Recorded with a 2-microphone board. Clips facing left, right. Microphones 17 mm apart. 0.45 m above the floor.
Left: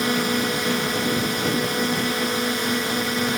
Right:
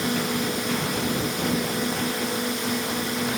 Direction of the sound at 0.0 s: 40° left (ahead or behind).